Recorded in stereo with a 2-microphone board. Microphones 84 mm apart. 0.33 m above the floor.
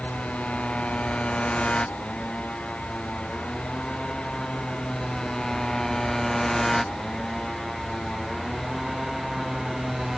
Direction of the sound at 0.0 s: 15° left (ahead or behind).